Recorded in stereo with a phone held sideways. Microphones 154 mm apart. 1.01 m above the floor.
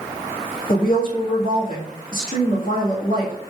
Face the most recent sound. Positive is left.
turn(degrees=65)  # may be behind; listen again after turning